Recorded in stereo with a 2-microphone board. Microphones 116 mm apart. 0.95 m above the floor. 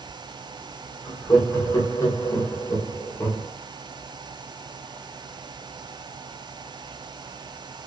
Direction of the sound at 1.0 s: 25° left (ahead or behind).